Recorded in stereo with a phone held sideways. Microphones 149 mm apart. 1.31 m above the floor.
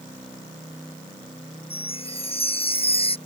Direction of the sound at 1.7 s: 40° left (ahead or behind).